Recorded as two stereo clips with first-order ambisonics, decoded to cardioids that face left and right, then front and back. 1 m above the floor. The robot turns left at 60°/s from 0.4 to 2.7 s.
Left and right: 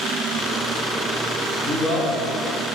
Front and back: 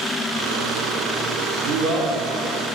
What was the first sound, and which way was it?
A man speaking, 165° left.